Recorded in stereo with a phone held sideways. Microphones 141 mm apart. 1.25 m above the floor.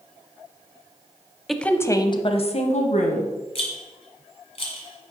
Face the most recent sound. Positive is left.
turn(degrees=50)  # may be behind; listen again after turning